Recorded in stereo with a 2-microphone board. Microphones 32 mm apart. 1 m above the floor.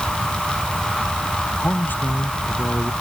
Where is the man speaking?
80° left.